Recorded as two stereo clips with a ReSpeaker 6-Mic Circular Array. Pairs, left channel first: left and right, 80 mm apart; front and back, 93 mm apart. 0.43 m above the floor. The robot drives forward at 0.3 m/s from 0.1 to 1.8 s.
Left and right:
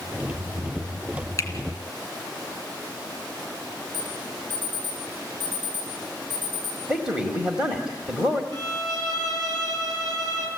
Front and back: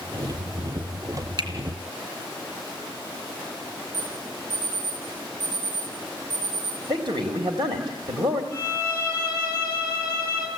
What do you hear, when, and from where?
1.4 s a finger snap: 145° left, 3.5 m
3.9 s an alarm: 155° right, 9.5 m
6.9 s a man speaking: 170° right, 2.5 m
8.5 s a violin: 125° right, 6 m